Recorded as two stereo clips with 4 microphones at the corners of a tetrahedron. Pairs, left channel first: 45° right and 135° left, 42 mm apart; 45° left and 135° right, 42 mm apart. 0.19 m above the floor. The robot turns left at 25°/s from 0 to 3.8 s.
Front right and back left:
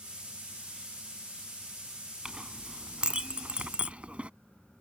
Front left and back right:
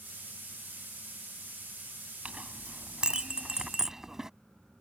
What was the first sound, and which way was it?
A clink, 160° right.